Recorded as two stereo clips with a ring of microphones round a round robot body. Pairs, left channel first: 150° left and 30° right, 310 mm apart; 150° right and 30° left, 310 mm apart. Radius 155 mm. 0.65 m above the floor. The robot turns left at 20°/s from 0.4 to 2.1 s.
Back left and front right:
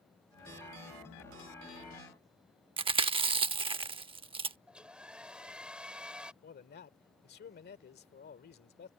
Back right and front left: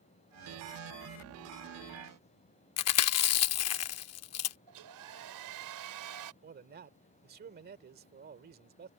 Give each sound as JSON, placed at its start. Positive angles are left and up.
{"t": 2.8, "sound": "chewing", "azimuth_deg": -105}
{"t": 4.7, "sound": "a hair dryer", "azimuth_deg": 55}
{"t": 6.4, "sound": "a man speaking", "azimuth_deg": 90}